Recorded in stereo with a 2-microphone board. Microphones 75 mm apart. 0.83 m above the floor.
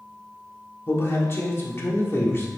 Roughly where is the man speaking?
Left.